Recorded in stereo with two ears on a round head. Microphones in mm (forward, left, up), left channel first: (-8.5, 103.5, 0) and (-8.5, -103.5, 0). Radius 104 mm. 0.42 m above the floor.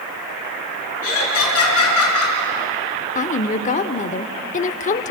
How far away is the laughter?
About 6 m.